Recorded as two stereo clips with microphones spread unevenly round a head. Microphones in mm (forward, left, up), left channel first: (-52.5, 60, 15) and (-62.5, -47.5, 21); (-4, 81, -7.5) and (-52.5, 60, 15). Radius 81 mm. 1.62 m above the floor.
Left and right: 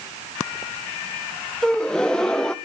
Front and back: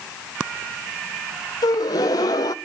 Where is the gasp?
Straight ahead, 0.5 m.